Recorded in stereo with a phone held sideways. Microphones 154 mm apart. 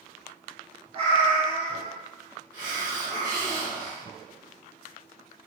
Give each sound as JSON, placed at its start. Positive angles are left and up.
{"t": 0.9, "sound": "a cat meowing", "side_deg": -35, "distance_m": 1.0}
{"t": 2.5, "sound": "a hiss", "side_deg": -25, "distance_m": 1.1}